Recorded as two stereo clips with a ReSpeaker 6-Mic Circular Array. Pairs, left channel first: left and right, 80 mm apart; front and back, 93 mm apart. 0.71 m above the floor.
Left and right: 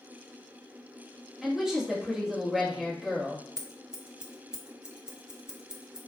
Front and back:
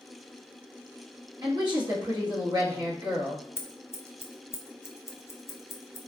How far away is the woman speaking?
About 1.2 m.